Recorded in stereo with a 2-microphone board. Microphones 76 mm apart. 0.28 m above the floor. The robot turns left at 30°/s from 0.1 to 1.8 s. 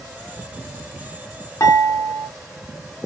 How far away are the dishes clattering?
About 1.9 m.